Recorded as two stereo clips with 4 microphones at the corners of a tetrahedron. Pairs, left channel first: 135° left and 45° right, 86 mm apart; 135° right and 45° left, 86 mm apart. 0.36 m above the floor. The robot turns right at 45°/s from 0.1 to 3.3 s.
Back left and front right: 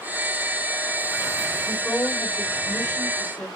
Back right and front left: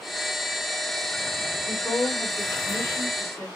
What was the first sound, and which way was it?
A woman speaking, 110° left.